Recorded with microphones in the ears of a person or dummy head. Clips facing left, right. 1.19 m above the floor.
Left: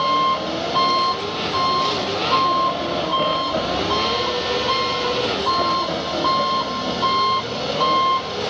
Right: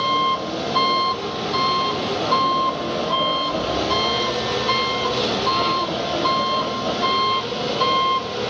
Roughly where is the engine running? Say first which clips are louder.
Left 2 dB; right.